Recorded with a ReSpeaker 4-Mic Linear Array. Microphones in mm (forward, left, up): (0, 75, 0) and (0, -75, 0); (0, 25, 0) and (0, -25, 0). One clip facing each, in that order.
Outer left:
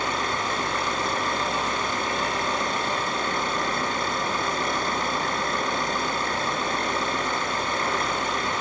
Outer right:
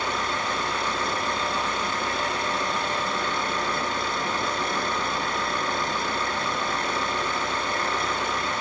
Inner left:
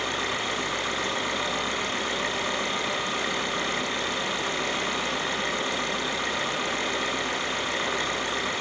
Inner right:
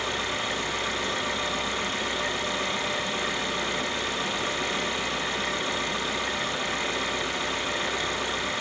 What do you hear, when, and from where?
0.0 s an engine running: 45° left (ahead or behind), 7.5 m